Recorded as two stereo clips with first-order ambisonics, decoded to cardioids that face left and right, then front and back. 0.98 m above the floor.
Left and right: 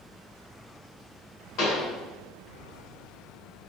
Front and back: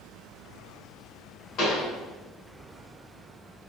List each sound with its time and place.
1.6 s a pop: 50° left, 1.2 m